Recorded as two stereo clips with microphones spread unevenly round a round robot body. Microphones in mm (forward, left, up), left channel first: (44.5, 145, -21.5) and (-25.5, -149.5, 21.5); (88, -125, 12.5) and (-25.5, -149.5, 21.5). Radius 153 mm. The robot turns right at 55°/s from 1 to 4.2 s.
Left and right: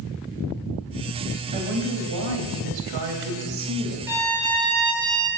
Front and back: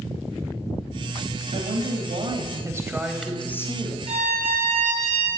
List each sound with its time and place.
1.5 s a woman speaking: 170° right, 3 m; by 4.0 s 35° right, 3 m
4.1 s a violin: 170° left, 2 m; by 5.3 s 175° left, 2 m